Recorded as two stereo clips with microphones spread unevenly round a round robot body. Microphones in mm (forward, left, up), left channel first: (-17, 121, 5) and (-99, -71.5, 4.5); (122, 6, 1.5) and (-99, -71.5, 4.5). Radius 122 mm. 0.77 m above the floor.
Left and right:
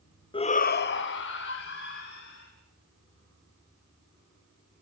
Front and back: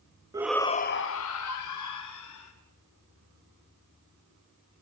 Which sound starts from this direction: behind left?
A shout, at 0.3 s.